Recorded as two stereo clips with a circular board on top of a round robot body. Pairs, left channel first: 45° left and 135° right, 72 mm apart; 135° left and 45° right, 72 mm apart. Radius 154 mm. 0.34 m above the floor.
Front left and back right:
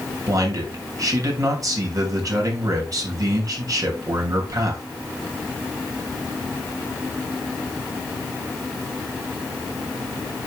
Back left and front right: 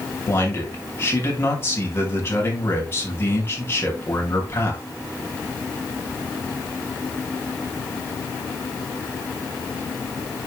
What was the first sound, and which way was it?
A man speaking, 170° right.